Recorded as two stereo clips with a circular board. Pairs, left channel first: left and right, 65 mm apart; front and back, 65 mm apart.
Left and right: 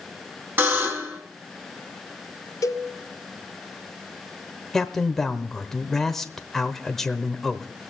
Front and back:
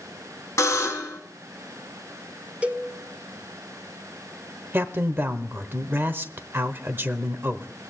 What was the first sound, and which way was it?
A buzzer, 35° right.